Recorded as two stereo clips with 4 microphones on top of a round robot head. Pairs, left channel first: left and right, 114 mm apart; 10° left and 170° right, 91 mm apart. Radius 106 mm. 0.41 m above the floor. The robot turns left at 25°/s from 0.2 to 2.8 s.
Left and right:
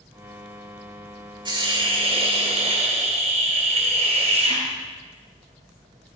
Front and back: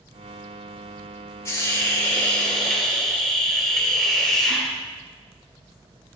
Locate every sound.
1.4 s a hiss: 50° right, 2.5 m; by 4.6 s 80° right, 2.5 m